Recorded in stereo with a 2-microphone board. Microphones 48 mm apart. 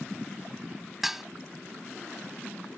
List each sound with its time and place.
1.0 s dishes clattering: 5° right (ahead or behind)